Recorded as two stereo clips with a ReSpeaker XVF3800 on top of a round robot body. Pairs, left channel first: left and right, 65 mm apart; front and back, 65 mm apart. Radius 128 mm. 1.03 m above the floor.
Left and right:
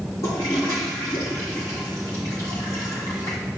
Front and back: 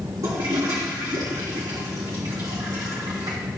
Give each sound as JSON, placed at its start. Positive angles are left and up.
{"t": 0.2, "sound": "a toilet flushing", "azimuth_deg": 140, "distance_m": 1.5}